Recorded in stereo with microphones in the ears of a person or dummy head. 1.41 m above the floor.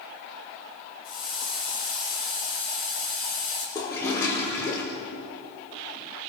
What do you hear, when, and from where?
1.0 s a hiss: 5° left (ahead or behind), 7 m
3.8 s a toilet flushing: 20° left (ahead or behind), 6 m